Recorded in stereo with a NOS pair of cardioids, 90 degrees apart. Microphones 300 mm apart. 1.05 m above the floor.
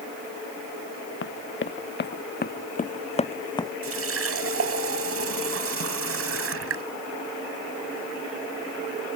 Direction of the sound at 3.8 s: 50° right.